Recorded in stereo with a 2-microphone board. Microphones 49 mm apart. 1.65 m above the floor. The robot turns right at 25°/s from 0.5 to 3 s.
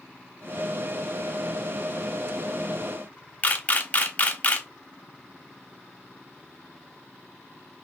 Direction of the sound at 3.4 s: 30° left (ahead or behind).